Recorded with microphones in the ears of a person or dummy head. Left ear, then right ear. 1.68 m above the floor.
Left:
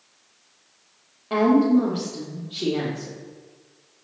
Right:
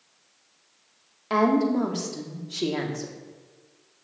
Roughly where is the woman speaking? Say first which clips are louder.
Left 3 dB; right.